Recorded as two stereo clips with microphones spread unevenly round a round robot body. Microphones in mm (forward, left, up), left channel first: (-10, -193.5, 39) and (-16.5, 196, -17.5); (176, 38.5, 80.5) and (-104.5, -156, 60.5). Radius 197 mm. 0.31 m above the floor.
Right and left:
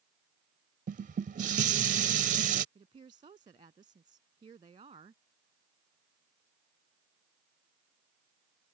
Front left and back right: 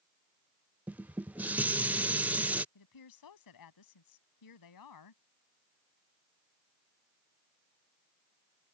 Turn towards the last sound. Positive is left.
turn(degrees=15)